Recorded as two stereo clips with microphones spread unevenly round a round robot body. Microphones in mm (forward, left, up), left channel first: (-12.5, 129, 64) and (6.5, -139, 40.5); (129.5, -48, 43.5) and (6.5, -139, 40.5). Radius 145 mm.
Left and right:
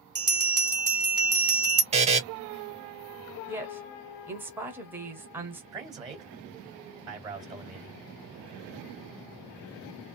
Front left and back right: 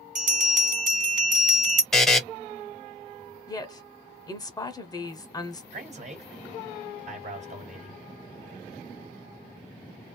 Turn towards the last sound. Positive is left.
turn(degrees=-150)